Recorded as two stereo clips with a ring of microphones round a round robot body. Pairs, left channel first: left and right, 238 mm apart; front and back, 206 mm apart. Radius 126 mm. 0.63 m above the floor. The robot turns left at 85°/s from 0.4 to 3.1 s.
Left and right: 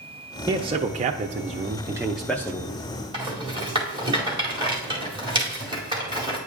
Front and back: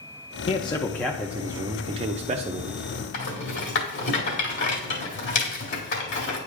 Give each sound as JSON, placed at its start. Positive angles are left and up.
{"t": 0.5, "sound": "a man speaking", "azimuth_deg": -30, "distance_m": 0.6}
{"t": 3.1, "sound": "a rattle", "azimuth_deg": -20, "distance_m": 2.0}